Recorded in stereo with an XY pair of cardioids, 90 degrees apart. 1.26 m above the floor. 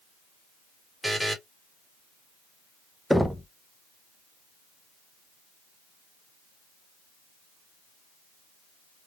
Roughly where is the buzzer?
Ahead.